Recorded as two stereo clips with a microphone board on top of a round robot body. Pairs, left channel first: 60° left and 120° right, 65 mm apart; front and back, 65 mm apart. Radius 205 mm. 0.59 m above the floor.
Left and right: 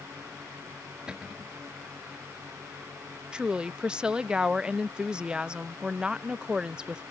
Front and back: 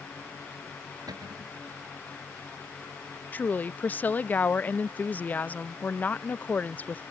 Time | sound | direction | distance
1.1 | a cupboard door | 160° left | ?
3.3 | a woman speaking | 50° right | ?